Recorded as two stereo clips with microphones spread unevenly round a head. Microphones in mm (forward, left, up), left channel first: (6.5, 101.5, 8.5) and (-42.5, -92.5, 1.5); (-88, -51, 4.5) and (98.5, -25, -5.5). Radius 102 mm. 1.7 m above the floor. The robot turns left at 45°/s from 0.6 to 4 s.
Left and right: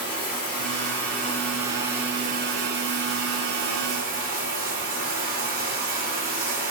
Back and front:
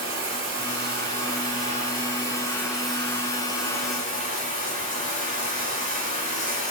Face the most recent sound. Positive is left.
turn(degrees=-135)